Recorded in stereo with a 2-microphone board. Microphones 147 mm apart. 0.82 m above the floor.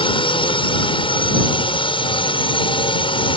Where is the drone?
35° left (ahead or behind).